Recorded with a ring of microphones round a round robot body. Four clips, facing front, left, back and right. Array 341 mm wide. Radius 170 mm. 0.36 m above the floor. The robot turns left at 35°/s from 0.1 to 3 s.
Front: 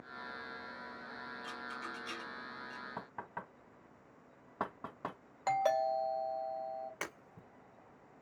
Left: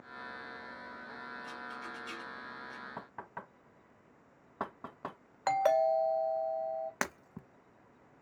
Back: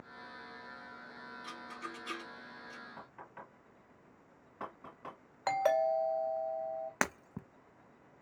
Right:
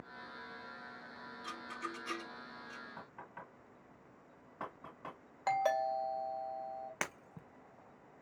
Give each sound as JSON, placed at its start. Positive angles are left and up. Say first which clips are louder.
{"t": 1.4, "sound": "a rattle", "louder": "even, even", "azimuth_deg": -100, "distance_m": 3.0}
{"t": 3.0, "sound": "knocking", "louder": "left 5 dB, front 5 dB", "azimuth_deg": 45, "distance_m": 1.6}
{"t": 5.5, "sound": "a doorbell", "louder": "left 5 dB, back 2 dB", "azimuth_deg": 110, "distance_m": 1.9}
{"t": 7.0, "sound": "breaking glass", "louder": "left 5 dB, back 9 dB", "azimuth_deg": 160, "distance_m": 0.9}